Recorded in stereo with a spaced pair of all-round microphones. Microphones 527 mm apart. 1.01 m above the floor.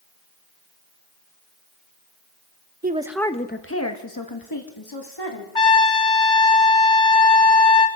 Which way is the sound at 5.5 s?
60° left (ahead or behind).